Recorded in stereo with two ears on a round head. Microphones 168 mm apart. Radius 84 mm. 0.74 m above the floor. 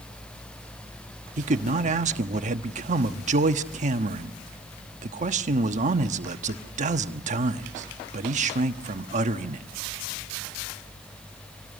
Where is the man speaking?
40° right (ahead or behind), 1.2 m.